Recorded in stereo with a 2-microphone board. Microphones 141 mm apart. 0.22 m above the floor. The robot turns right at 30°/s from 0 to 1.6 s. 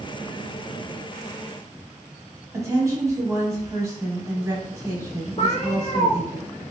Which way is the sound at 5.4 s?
45° left (ahead or behind).